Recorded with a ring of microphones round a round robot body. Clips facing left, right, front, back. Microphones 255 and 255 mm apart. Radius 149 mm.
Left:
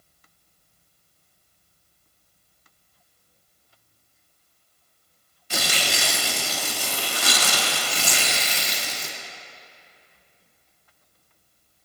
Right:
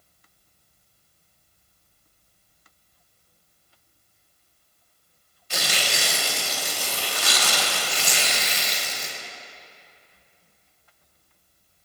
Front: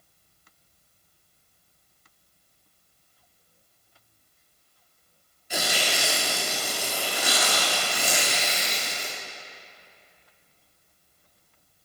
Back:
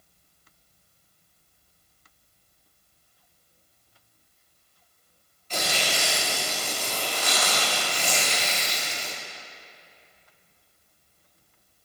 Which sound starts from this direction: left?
Tearing paper, at 5.5 s.